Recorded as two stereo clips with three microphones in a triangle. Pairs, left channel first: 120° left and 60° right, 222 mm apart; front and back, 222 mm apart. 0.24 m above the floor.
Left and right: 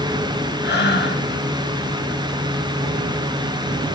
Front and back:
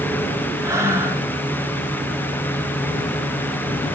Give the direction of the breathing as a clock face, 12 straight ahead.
8 o'clock.